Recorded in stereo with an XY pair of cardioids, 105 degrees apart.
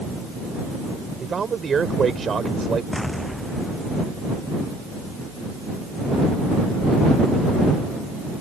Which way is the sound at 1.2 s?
40° right.